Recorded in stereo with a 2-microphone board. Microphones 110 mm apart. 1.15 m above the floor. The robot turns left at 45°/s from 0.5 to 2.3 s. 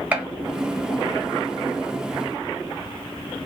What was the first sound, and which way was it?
A gunshot, 15° right (ahead or behind).